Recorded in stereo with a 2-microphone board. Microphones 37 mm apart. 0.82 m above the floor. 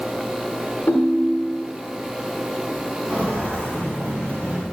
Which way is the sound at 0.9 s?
80° left.